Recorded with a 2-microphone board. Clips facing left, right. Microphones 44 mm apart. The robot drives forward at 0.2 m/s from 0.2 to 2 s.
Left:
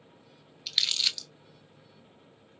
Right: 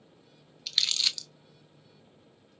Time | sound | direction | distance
0.7 | crumpling | 5° left (ahead or behind) | 0.5 m